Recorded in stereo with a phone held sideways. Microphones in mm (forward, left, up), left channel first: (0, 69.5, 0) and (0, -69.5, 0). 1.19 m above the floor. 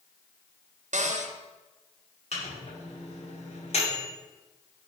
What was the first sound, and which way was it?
A cupboard door, 65° right (ahead or behind).